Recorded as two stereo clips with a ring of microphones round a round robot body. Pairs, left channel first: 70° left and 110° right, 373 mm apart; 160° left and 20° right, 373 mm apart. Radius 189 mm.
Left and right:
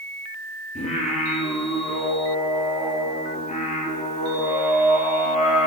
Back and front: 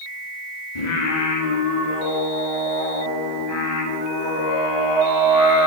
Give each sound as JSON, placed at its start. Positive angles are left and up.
{"t": 0.8, "sound": "singing", "azimuth_deg": 140, "distance_m": 1.6}